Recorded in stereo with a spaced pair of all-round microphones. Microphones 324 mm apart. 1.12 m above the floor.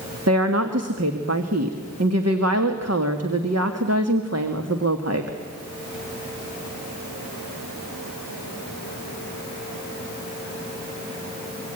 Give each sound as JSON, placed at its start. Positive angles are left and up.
{"t": 0.3, "sound": "a woman speaking", "side_deg": -50, "distance_m": 1.8}